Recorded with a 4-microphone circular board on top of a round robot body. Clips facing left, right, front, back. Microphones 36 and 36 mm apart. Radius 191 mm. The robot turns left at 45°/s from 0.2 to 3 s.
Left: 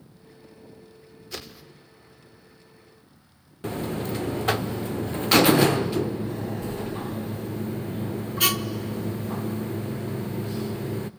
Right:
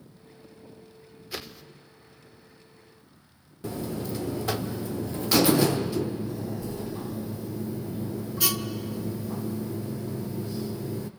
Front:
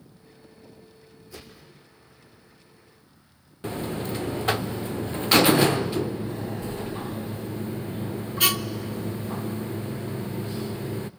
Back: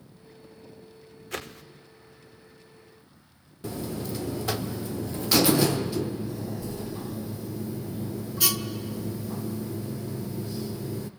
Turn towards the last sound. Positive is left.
turn(degrees=50)